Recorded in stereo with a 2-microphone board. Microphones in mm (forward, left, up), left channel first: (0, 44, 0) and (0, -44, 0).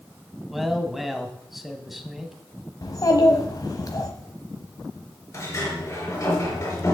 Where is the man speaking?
Centre (ahead or behind), 1.4 m.